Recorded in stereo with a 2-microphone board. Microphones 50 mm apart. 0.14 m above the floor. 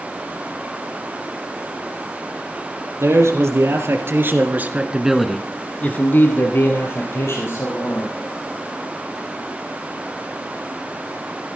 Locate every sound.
3.0 s a man speaking: 70° right (ahead or behind), 3.5 m; by 8.1 s 65° left (ahead or behind), 4.5 m